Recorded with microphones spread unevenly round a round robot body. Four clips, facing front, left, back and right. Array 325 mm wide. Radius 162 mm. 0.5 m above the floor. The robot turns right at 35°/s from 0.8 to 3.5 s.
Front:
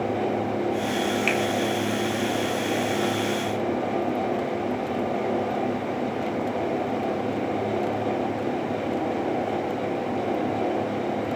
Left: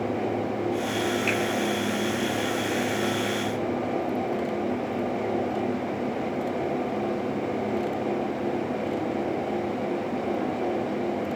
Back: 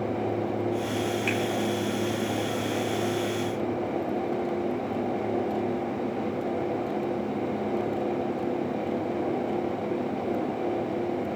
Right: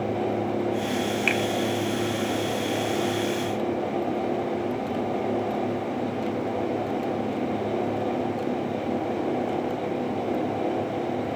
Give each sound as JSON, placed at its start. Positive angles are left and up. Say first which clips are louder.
{"t": 1.3, "sound": "a finger snap", "louder": "right 1 dB, front 3 dB", "azimuth_deg": -80, "distance_m": 3.0}